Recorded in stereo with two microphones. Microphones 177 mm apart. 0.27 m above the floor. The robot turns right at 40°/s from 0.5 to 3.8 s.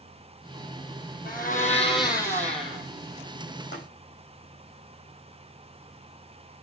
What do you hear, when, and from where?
1.2 s a blender: 125° left, 2.5 m; by 2.8 s 175° right, 2.5 m
3.7 s tapping: 70° left (ahead or behind), 5.5 m